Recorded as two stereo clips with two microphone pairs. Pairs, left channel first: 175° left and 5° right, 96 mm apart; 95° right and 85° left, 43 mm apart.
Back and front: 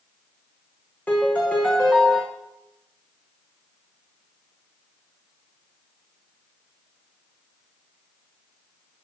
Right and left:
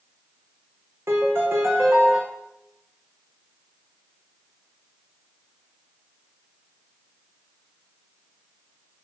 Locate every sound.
1.1 s a piano: 100° left, 2.5 m